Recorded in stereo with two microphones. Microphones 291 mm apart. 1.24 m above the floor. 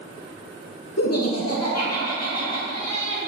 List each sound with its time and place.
1.0 s laughter: 60° left (ahead or behind), 1.1 m; by 3.2 s 65° left (ahead or behind), 2.5 m